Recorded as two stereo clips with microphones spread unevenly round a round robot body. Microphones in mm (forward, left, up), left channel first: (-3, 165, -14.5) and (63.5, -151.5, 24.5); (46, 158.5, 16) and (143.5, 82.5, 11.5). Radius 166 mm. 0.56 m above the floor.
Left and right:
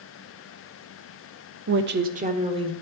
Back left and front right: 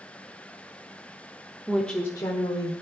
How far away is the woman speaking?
About 0.7 m.